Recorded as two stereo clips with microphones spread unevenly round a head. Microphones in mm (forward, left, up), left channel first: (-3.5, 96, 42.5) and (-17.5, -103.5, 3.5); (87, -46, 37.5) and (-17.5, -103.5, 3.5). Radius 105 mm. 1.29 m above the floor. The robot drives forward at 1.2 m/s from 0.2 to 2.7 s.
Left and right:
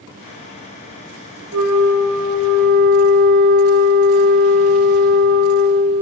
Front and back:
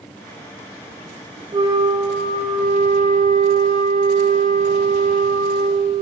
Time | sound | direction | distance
1.5 | a flute | 95° right | 2.5 m